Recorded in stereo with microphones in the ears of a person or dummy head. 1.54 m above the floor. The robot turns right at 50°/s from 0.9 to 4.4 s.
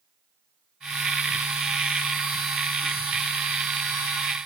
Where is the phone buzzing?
No phone buzzing in this recording.